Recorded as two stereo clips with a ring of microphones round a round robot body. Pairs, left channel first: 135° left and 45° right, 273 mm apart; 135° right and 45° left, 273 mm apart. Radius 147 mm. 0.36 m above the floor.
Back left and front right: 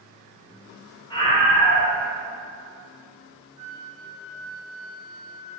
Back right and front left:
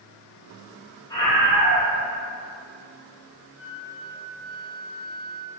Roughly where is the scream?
Behind.